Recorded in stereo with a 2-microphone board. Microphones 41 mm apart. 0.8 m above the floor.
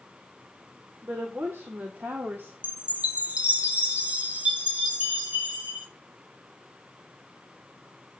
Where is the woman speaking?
75° right (ahead or behind), 3 m; by 2.5 s 65° right (ahead or behind), 1.9 m.